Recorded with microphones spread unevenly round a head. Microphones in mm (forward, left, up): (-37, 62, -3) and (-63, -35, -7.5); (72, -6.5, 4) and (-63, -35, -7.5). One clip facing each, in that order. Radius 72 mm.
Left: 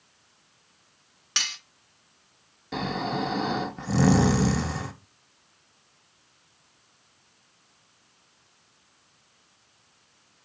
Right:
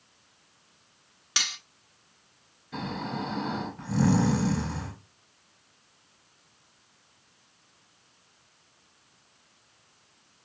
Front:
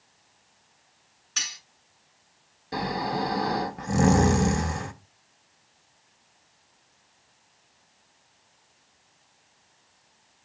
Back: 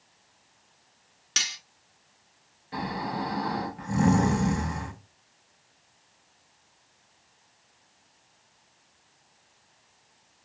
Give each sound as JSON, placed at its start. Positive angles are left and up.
{"t": 1.4, "sound": "cutlery clinking", "azimuth_deg": 170, "distance_m": 0.9}
{"t": 2.7, "sound": "snoring", "azimuth_deg": 60, "distance_m": 0.7}